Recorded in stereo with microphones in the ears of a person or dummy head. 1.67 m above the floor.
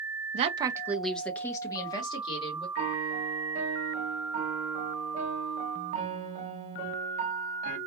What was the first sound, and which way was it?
A woman speaking, 40° right (ahead or behind).